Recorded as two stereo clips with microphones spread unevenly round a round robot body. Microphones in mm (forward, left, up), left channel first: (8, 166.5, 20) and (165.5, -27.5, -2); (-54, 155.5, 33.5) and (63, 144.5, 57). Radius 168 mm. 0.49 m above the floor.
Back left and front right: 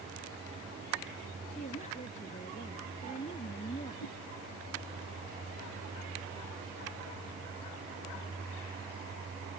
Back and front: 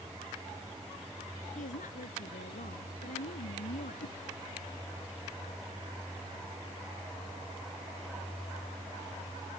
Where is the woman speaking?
160° right.